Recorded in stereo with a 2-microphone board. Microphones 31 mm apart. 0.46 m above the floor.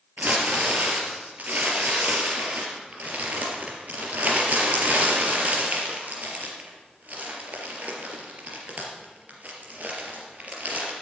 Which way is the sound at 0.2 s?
55° right (ahead or behind).